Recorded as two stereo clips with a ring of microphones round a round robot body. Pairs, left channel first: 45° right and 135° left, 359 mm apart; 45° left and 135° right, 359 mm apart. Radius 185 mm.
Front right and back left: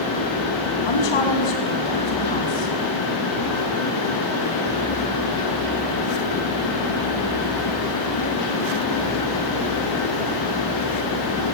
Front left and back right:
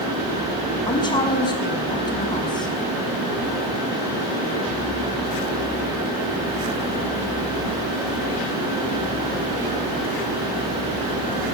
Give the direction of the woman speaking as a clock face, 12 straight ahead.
1 o'clock.